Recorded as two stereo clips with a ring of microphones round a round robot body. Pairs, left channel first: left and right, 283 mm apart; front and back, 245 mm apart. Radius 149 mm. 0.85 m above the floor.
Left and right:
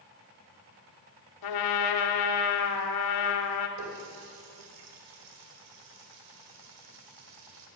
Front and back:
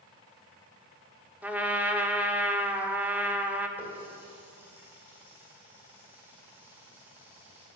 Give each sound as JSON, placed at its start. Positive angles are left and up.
{"t": 1.4, "sound": "a trumpet", "azimuth_deg": 95, "distance_m": 1.4}
{"t": 3.8, "sound": "a running tap", "azimuth_deg": -95, "distance_m": 2.0}